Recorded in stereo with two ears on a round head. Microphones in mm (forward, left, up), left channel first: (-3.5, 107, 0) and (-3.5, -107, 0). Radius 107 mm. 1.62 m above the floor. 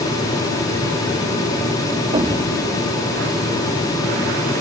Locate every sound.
2.1 s an explosion: 20° right (ahead or behind)